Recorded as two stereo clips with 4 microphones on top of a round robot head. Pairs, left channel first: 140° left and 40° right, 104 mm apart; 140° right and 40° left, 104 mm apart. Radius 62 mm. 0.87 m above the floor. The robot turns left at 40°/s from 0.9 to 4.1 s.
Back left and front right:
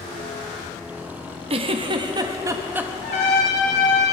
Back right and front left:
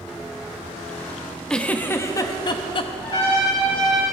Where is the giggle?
60° right, 0.9 m; by 2.9 s 115° right, 0.9 m.